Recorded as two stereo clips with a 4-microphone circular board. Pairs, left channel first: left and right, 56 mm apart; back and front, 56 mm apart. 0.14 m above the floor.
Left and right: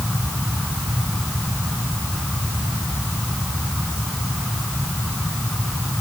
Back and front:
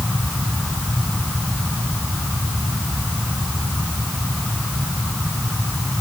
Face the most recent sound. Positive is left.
No sound to turn to.